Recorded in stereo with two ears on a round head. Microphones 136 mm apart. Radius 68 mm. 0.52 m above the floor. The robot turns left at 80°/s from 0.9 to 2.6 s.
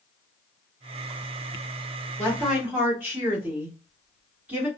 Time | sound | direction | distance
2.2 | a woman speaking | 15° left | 1.4 m